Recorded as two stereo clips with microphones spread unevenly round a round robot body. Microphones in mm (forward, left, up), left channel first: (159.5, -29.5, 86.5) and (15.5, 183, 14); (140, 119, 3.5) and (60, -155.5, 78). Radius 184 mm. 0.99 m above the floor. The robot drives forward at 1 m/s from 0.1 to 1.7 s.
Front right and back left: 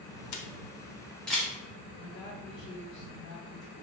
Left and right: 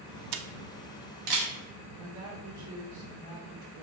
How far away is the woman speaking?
About 3 m.